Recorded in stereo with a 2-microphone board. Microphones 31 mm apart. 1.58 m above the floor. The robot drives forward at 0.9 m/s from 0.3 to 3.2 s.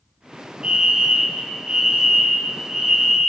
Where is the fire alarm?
30° right (ahead or behind), 1.2 m; by 3.3 s 15° right (ahead or behind), 2.5 m.